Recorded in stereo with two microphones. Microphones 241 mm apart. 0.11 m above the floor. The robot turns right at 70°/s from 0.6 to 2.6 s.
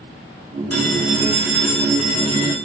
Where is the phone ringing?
110° left, 5 m; by 2.5 s 120° right, 5 m.